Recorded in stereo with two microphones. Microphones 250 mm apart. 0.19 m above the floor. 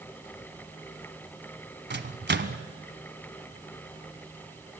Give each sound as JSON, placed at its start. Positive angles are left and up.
{"t": 1.9, "sound": "a microwave", "side_deg": -45, "distance_m": 1.0}